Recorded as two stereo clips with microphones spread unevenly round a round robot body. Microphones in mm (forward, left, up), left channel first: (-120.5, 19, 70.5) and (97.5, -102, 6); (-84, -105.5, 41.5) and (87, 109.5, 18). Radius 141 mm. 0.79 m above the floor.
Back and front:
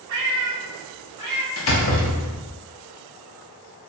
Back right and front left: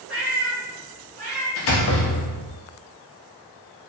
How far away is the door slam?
About 0.6 m.